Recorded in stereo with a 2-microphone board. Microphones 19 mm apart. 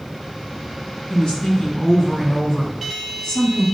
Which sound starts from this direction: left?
A woman speaking, at 1.1 s.